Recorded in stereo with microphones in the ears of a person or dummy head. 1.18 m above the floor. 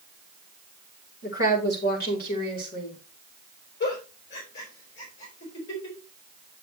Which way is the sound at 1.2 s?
65° left (ahead or behind).